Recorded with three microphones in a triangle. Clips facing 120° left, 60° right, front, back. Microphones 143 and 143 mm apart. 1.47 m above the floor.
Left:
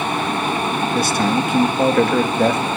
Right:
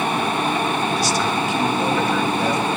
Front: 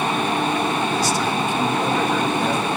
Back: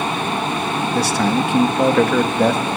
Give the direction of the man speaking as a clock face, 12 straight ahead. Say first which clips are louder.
Left 3 dB, back 3 dB; 7 o'clock.